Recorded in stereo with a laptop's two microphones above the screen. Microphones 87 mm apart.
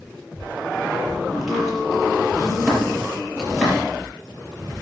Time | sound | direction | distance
1.3 | chopping | centre (ahead or behind) | 8 m